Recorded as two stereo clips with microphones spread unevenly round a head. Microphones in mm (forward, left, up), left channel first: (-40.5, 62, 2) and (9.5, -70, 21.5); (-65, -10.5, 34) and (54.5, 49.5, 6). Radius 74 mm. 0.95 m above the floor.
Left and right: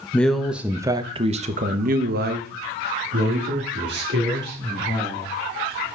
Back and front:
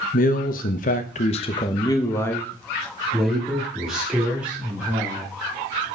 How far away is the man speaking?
About 1.0 m.